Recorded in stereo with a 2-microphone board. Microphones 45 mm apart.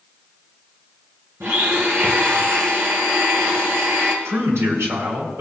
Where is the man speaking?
80° right, 4 m.